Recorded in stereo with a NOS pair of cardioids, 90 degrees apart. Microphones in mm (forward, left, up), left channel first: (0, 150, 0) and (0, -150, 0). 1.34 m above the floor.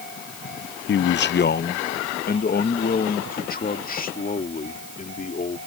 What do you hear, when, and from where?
0.9 s a man speaking: 40° left; by 5.6 s 25° left